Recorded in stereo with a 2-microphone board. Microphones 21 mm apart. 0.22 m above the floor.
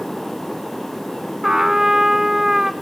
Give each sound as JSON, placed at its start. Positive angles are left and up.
{"t": 1.4, "sound": "a trumpet", "side_deg": -25, "distance_m": 0.7}